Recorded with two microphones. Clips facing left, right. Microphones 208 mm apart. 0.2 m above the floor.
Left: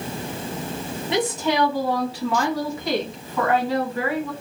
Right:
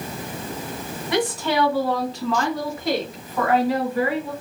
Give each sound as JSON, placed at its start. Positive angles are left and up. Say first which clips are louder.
{"t": 1.1, "sound": "a woman speaking", "louder": "even", "side_deg": 25, "distance_m": 1.6}